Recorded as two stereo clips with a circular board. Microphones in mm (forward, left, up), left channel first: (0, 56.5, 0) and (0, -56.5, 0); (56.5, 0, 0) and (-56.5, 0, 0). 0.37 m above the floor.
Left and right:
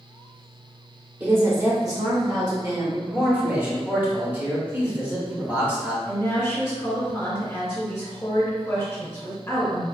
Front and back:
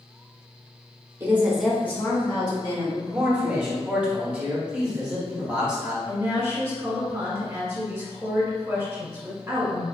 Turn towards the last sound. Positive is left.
turn(degrees=135)